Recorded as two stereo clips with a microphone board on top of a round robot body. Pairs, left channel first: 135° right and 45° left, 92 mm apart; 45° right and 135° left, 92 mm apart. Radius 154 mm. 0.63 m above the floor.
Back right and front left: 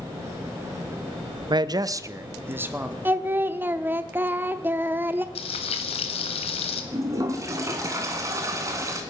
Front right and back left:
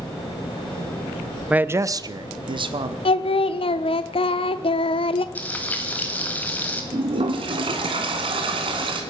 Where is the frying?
120° right, 1.0 m.